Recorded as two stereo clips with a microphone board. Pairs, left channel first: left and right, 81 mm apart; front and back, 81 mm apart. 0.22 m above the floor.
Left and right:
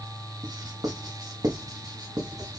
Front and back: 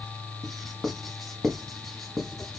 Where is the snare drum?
I don't hear a snare drum.